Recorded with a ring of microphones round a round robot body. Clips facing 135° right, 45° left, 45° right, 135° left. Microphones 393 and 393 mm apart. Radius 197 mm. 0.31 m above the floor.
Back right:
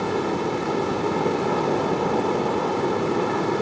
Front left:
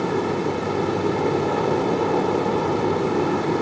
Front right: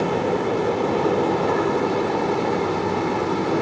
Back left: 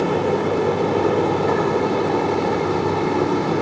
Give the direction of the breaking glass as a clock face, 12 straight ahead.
I don't hear breaking glass.